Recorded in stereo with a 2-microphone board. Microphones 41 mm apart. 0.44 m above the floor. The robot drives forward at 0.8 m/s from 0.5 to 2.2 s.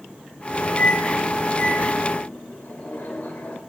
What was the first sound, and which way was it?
A microwave, 35° left (ahead or behind).